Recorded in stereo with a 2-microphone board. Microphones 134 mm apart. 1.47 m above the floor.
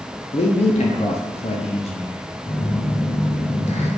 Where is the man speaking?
55° left (ahead or behind), 0.6 m.